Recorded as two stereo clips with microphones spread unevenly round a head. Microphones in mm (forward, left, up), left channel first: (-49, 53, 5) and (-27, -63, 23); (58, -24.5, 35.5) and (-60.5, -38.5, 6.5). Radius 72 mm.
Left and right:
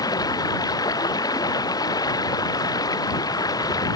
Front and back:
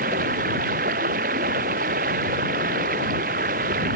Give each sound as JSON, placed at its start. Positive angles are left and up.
{"t": 0.0, "sound": "running water", "azimuth_deg": 160}